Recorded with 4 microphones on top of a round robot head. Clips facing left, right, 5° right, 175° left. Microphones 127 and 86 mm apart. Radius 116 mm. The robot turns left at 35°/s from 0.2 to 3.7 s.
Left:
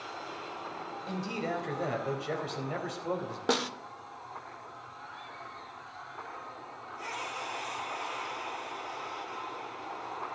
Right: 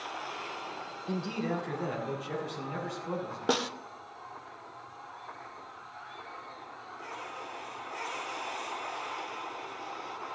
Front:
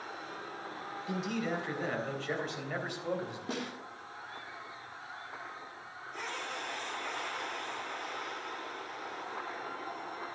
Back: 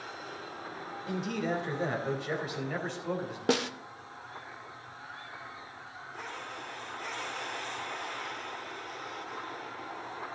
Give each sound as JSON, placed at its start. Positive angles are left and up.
{"t": 1.1, "sound": "a man speaking", "azimuth_deg": 145, "distance_m": 3.0}
{"t": 3.5, "sound": "a snare drum", "azimuth_deg": -175, "distance_m": 0.6}